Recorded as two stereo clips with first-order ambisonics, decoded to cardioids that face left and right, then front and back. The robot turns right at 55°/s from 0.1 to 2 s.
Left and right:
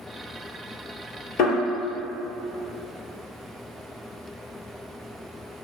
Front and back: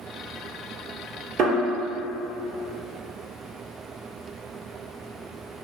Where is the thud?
125° left, 1.7 m; by 1.6 s 135° left, 1.7 m.